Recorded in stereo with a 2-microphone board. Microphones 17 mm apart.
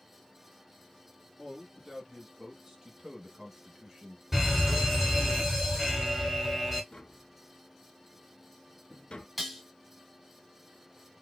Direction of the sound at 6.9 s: 65° left (ahead or behind).